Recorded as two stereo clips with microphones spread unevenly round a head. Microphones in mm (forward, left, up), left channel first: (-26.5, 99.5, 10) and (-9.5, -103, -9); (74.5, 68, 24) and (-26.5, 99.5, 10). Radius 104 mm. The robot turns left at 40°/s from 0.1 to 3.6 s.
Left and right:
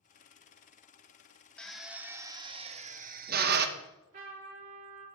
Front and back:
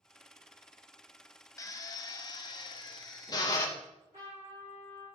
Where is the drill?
15° left, 0.6 m; by 3.7 s 65° right, 0.6 m.